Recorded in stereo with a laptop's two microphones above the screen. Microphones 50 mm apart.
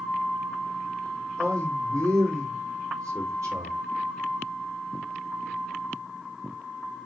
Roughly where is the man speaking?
Right.